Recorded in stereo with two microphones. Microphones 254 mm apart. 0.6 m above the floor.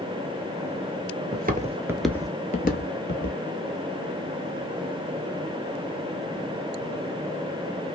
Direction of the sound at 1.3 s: 40° right (ahead or behind).